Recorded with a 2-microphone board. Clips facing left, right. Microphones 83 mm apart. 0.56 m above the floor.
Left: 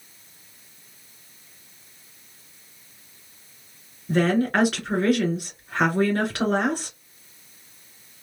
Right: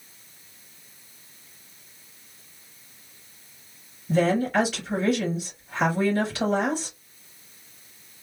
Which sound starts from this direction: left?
A woman speaking, at 4.1 s.